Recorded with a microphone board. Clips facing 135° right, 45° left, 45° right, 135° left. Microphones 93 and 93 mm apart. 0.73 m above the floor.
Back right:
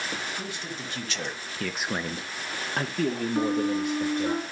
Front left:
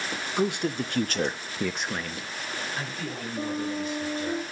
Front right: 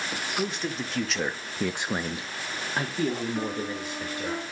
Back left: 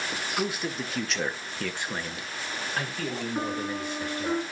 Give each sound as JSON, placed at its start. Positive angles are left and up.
{"t": 0.4, "sound": "a man speaking", "azimuth_deg": 55, "distance_m": 1.5}
{"t": 3.4, "sound": "a piano", "azimuth_deg": -155, "distance_m": 1.9}